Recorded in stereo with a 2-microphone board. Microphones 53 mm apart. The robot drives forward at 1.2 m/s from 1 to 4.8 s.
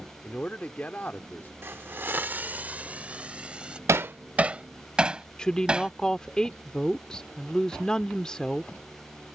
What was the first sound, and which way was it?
A man speaking, 30° left (ahead or behind).